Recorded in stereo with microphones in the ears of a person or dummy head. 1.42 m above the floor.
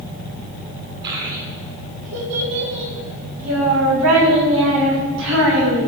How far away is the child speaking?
About 3.5 m.